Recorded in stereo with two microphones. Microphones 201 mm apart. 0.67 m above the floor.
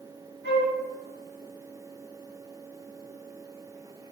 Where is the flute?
60° right (ahead or behind), 1.6 m.